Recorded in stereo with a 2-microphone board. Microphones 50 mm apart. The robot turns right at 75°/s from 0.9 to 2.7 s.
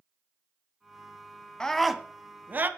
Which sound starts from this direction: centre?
A scream, at 1.6 s.